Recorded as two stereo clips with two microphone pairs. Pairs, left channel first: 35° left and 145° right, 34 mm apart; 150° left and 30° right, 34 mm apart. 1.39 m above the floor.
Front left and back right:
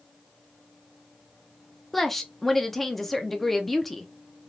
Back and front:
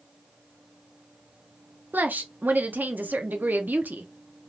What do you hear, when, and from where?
1.9 s a woman speaking: 50° right, 0.6 m